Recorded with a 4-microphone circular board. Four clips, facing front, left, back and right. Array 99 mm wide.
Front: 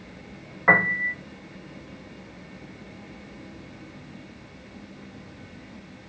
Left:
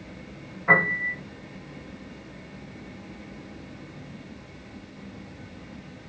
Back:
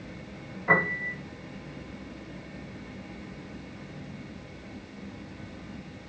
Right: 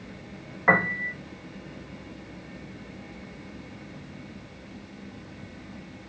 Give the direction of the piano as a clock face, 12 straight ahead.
1 o'clock.